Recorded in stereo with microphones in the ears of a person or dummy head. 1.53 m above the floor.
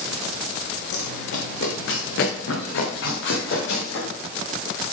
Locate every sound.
0.9 s running footsteps: 60° left (ahead or behind), 4 m; by 4.1 s 75° left (ahead or behind), 5.5 m